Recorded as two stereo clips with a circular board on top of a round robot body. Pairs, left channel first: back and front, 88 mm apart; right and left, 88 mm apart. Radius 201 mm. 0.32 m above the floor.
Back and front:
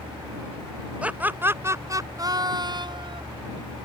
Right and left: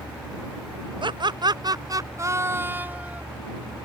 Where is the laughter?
75° left; by 3.2 s 15° left.